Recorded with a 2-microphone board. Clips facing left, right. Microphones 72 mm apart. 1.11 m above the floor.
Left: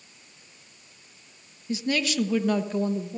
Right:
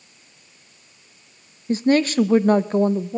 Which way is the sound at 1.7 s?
40° right (ahead or behind).